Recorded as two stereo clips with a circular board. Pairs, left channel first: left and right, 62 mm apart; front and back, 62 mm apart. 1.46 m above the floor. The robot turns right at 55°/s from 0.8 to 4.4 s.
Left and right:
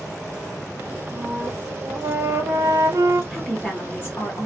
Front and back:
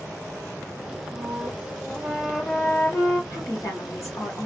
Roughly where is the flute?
Behind right.